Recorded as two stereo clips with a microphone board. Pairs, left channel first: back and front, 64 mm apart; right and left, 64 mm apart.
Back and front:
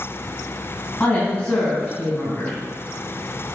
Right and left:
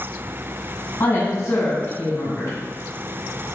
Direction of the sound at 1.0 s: 115° right.